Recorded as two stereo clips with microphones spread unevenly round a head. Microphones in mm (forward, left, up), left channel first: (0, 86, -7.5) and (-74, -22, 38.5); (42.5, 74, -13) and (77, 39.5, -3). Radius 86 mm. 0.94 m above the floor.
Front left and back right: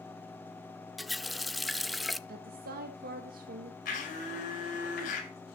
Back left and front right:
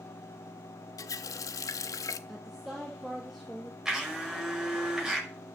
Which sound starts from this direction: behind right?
A woman speaking, at 2.3 s.